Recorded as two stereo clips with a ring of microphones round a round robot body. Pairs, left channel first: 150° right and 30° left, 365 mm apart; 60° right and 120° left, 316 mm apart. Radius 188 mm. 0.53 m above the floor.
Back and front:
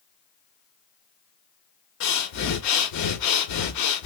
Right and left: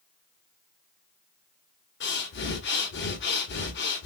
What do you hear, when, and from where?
2.0 s breathing: 115° right, 0.9 m